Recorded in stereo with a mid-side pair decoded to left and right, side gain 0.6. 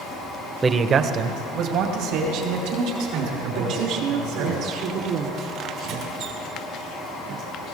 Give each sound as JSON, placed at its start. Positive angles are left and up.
{"t": 0.6, "sound": "a man speaking", "azimuth_deg": -25, "distance_m": 0.9}
{"t": 3.5, "sound": "a woman speaking", "azimuth_deg": -65, "distance_m": 3.0}
{"t": 5.8, "sound": "a squeak", "azimuth_deg": -70, "distance_m": 3.0}